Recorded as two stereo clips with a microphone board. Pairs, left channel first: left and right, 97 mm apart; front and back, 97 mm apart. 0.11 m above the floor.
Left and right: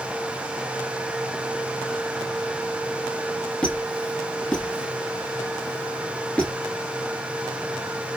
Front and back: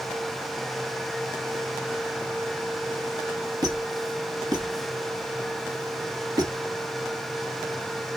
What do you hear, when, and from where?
3.6 s a squeak: 165° left, 0.7 m